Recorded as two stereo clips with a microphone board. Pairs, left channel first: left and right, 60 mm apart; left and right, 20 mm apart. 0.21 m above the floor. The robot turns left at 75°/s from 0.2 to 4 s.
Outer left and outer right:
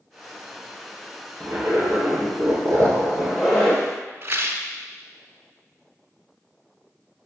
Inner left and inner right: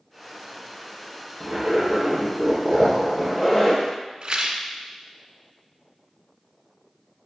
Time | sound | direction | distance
1.4 | a zipper | 30° right | 3 m
4.2 | a rattle | 40° right (ahead or behind) | 1.1 m